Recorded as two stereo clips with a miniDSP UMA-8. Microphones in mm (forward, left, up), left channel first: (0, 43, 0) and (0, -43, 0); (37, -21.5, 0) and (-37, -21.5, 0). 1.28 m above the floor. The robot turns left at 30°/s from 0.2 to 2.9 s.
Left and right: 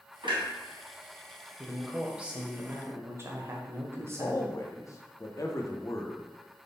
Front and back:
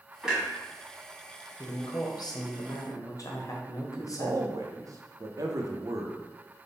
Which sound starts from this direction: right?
A clunk, at 0.2 s.